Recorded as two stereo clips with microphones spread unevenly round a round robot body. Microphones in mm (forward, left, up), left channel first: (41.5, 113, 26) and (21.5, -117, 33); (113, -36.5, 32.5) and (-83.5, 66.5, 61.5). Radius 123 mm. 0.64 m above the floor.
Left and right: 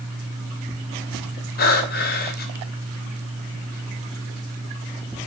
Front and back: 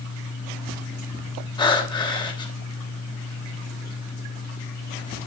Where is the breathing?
40° left, 2.5 m.